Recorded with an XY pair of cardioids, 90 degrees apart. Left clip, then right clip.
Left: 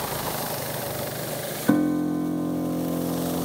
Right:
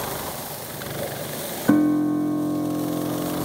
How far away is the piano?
About 0.6 m.